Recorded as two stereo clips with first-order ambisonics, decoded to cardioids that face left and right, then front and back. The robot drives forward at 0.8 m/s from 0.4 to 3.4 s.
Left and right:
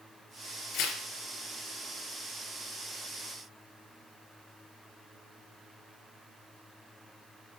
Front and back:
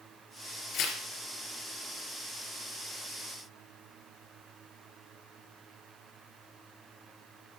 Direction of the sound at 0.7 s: 45° left.